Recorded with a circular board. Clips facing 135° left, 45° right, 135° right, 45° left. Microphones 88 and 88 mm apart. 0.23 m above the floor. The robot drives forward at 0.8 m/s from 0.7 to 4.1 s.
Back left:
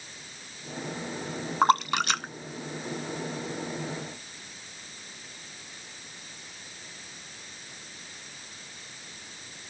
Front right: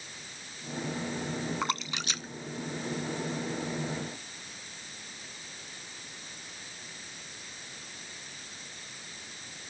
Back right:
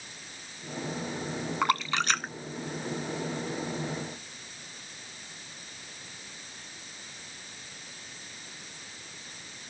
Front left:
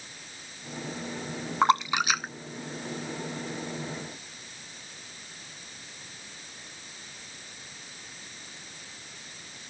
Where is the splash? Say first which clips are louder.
Back left 11 dB, front left 5 dB; 105° left; by 3.7 s 155° left.